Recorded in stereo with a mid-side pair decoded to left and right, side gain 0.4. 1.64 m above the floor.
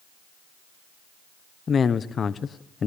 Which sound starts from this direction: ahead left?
A man speaking, at 1.7 s.